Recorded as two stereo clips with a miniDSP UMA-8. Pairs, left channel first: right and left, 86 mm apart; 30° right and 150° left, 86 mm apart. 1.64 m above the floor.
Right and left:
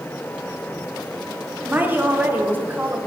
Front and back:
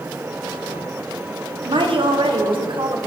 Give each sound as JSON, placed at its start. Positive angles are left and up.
{"t": 1.7, "sound": "a woman speaking", "azimuth_deg": 160, "distance_m": 1.4}